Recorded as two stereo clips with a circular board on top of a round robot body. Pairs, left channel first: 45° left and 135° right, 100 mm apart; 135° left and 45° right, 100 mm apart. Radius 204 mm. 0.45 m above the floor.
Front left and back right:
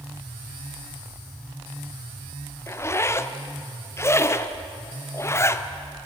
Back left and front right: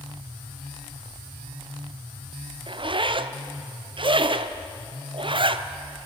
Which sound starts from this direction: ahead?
A zipper, at 2.7 s.